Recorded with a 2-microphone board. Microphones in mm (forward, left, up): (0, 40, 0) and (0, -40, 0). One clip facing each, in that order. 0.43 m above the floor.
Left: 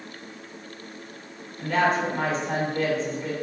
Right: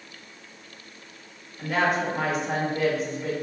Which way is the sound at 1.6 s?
5° right (ahead or behind).